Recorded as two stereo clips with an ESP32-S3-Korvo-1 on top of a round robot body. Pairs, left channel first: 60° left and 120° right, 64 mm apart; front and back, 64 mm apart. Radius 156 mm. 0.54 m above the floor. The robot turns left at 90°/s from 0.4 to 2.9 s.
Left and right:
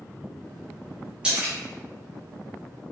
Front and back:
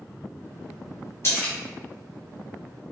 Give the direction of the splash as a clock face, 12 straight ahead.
2 o'clock.